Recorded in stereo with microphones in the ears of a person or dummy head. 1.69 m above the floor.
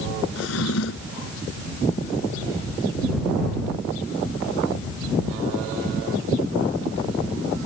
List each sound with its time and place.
0.3 s a drawer: 75° left (ahead or behind)